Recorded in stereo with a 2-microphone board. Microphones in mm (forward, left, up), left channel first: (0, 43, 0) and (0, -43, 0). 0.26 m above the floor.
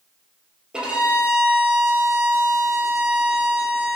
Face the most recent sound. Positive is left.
turn(degrees=-10)  # may be behind; listen again after turning